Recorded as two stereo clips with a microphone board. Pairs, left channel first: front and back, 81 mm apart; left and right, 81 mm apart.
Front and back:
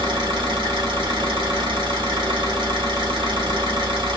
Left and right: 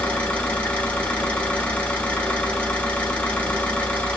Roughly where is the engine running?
Behind.